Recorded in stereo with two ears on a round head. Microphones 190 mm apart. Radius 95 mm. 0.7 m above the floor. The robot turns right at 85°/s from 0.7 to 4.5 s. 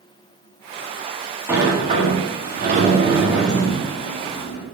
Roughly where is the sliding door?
Behind.